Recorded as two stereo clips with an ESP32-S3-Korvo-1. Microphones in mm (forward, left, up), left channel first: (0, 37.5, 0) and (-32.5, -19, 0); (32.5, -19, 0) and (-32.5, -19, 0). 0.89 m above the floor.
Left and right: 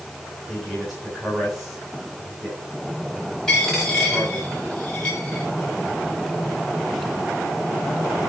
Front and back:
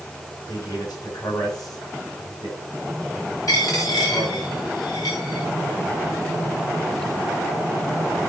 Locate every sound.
0.5 s a man speaking: 25° right, 7 m
3.5 s a dropped coin: 20° right, 7 m